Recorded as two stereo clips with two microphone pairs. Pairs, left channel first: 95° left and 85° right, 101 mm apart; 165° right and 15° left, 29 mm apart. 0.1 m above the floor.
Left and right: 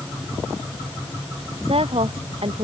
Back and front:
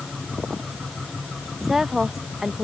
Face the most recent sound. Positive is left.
turn(degrees=-65)